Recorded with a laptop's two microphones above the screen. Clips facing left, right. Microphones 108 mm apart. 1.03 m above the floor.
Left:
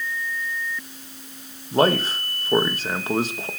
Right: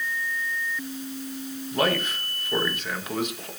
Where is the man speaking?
35° left (ahead or behind), 1.5 m.